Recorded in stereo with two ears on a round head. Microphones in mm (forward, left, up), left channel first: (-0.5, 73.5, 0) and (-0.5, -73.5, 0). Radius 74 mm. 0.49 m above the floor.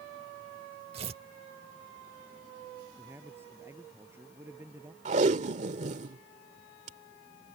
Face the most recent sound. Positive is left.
turn(degrees=-45)  # may be behind; listen again after turning